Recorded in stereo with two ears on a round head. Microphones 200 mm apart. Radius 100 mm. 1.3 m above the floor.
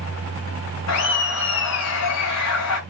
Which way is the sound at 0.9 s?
80° left.